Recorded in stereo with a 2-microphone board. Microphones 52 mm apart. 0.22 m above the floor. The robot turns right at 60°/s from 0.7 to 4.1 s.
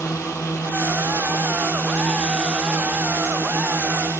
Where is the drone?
75° left; by 4.2 s 80° right.